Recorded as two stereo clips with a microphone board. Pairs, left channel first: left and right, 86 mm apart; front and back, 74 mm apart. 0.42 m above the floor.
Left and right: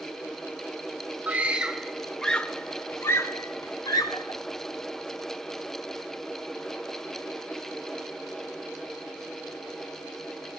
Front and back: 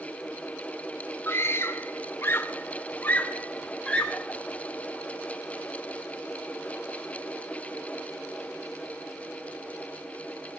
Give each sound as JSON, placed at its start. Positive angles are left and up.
{"t": 1.3, "sound": "a scream", "azimuth_deg": -30, "distance_m": 1.1}